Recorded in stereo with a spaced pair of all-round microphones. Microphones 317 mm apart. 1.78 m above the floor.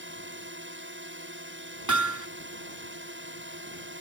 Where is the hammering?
70° right (ahead or behind).